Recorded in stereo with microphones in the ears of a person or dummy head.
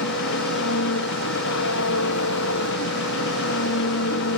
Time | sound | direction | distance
0.0 | an engine running | 70° left (ahead or behind) | ?